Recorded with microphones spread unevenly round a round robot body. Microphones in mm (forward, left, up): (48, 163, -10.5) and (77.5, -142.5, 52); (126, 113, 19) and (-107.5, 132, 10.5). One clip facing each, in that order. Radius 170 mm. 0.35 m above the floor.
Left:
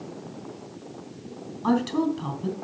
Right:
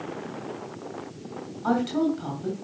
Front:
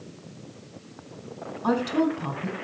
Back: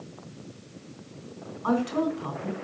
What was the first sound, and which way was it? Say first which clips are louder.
A woman speaking: left 1 dB, front 2 dB; 30° left.